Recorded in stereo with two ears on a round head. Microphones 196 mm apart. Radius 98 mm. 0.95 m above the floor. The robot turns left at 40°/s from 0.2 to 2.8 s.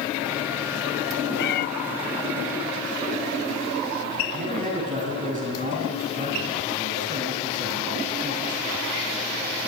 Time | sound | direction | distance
1.4 | a cat meowing | 50° left (ahead or behind) | 0.6 m
4.3 | a man speaking | 35° right (ahead or behind) | 9.5 m